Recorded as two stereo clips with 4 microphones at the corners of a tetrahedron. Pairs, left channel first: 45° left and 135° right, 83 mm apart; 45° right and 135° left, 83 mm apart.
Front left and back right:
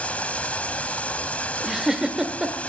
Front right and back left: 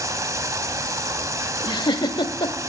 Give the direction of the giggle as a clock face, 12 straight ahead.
2 o'clock.